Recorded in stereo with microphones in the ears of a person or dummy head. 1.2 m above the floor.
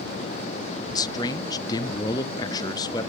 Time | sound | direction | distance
0.9 | a man speaking | 20° left (ahead or behind) | 0.6 m